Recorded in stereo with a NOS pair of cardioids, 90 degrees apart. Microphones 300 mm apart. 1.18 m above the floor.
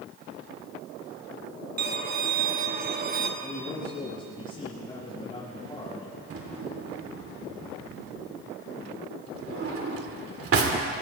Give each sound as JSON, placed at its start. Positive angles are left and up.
{"t": 1.8, "sound": "a violin", "azimuth_deg": -30, "distance_m": 1.6}
{"t": 3.4, "sound": "a man speaking", "azimuth_deg": 15, "distance_m": 7.5}
{"t": 6.3, "sound": "a drawer", "azimuth_deg": -50, "distance_m": 2.5}